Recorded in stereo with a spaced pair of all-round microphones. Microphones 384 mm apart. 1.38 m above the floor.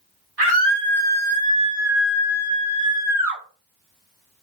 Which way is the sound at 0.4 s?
75° right (ahead or behind).